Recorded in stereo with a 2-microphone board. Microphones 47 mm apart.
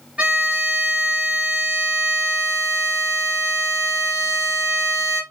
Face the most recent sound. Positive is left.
turn(degrees=-25)  # may be behind; listen again after turning